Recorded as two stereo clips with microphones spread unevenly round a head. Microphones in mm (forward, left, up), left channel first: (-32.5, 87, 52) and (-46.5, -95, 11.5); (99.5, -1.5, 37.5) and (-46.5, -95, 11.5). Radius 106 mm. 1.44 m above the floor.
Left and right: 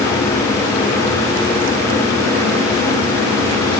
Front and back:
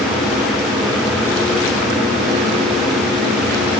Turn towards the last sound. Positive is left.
No sound to turn to.